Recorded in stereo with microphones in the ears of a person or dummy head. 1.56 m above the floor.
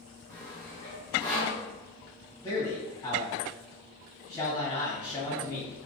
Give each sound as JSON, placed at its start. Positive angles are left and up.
{"t": 0.3, "sound": "sawing", "side_deg": 0, "distance_m": 0.6}
{"t": 2.4, "sound": "a man speaking", "side_deg": 15, "distance_m": 1.3}